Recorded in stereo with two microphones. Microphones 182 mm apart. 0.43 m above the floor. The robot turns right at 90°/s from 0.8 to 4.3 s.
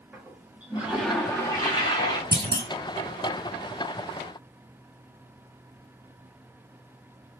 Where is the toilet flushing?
5° right (ahead or behind), 1.4 m; by 2.2 s 25° left (ahead or behind), 1.4 m.